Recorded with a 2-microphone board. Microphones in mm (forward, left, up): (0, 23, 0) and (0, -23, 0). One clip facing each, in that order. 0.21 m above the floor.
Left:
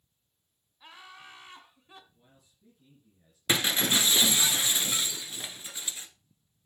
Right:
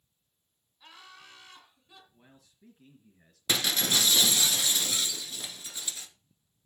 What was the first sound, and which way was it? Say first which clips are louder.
Laughter: left 3 dB; 15° left (ahead or behind).